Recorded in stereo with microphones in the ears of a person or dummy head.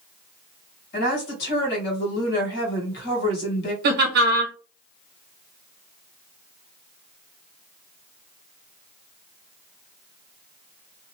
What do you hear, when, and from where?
0.9 s a woman speaking: 55° left (ahead or behind), 1.6 m
3.8 s laughter: 55° right (ahead or behind), 1.2 m